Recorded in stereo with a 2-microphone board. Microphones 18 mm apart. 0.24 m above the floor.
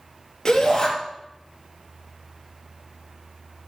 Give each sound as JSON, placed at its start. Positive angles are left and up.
{"t": 0.5, "sound": "a shout", "side_deg": 25, "distance_m": 5.0}